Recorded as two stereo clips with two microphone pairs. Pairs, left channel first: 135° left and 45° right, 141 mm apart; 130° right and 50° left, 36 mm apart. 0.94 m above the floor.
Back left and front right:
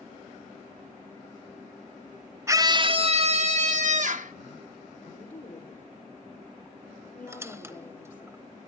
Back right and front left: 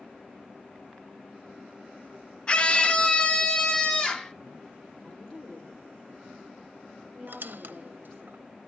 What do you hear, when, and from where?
2.5 s a scream: 95° right, 0.6 m; by 4.3 s 60° right, 1.5 m
5.0 s a woman speaking: 155° left, 2.5 m
7.3 s a squeak: 25° left, 0.7 m